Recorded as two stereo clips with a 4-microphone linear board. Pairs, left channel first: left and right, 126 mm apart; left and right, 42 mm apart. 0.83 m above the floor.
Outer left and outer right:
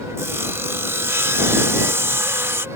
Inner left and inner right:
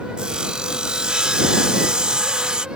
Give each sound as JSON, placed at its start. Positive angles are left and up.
{"t": 0.2, "sound": "sawing", "side_deg": -20}